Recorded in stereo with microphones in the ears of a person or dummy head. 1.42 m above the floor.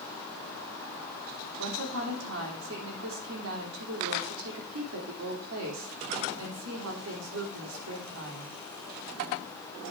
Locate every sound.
1.6 s a woman speaking: 85° right, 3 m